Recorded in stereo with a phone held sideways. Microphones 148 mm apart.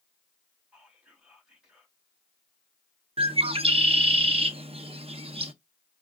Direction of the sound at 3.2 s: 40° right (ahead or behind).